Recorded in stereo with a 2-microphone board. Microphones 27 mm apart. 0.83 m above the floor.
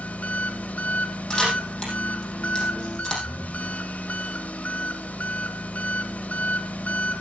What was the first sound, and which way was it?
An engine running, 70° left (ahead or behind).